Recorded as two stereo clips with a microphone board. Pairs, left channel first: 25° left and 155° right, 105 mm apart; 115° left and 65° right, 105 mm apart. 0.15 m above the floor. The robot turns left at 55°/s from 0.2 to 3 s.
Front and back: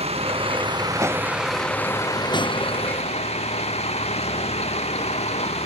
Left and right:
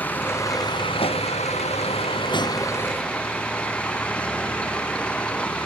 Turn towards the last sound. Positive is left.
turn(degrees=30)